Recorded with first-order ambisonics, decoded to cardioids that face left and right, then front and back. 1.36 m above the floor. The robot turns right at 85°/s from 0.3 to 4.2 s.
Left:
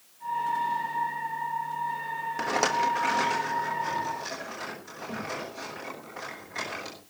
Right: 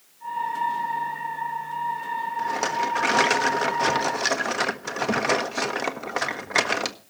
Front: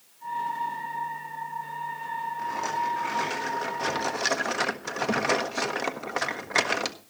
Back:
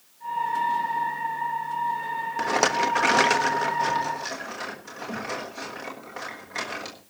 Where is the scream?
I don't hear a scream.